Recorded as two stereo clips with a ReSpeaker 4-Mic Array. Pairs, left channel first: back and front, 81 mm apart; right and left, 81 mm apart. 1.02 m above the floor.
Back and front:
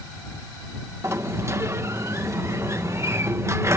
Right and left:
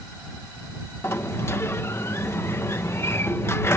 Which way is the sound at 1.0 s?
40° right.